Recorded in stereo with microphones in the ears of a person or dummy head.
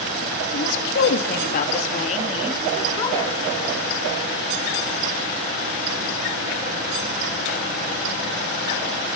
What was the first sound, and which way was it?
A woman speaking, 80° left.